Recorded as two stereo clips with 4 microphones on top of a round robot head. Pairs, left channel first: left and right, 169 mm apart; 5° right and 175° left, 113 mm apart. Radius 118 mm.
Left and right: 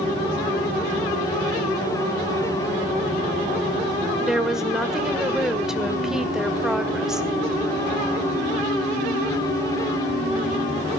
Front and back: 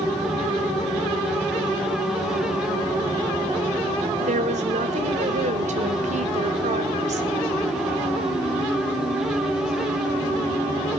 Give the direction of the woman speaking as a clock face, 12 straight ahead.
6 o'clock.